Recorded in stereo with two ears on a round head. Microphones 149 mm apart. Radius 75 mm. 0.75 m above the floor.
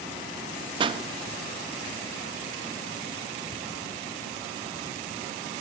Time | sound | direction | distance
0.8 | a pop | 30° right (ahead or behind) | 0.7 m